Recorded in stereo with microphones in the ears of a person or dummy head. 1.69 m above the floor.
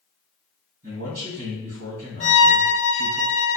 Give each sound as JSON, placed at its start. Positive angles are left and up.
{"t": 0.8, "sound": "a man speaking", "side_deg": -85, "distance_m": 1.6}
{"t": 2.2, "sound": "a violin", "side_deg": 35, "distance_m": 0.6}